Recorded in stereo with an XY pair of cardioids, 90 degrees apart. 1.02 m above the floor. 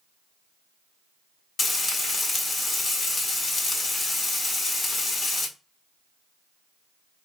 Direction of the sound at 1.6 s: 50° left.